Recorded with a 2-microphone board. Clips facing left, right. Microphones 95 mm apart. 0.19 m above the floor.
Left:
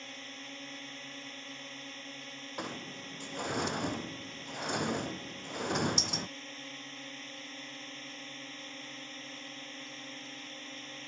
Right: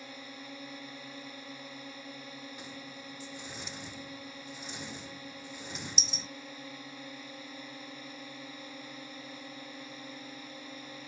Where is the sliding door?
60° left (ahead or behind).